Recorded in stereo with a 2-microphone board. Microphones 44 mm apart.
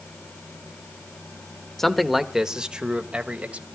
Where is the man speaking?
5° left (ahead or behind), 1.1 m; by 3.7 s 35° right (ahead or behind), 2 m.